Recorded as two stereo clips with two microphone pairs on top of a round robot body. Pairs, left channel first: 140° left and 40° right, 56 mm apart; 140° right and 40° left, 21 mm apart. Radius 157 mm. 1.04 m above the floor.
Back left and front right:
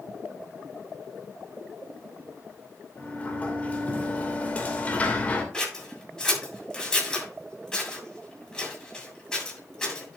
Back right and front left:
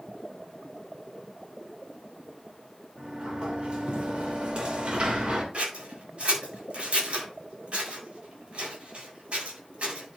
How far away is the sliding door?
About 2.5 m.